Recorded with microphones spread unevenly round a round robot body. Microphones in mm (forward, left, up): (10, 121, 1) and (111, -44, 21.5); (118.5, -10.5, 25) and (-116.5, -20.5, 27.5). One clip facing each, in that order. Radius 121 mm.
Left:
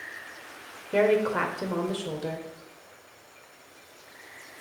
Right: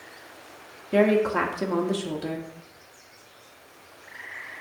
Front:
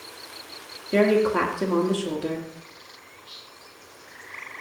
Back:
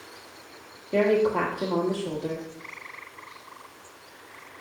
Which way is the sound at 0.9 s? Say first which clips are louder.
Right 2 dB, front 2 dB; 60° right.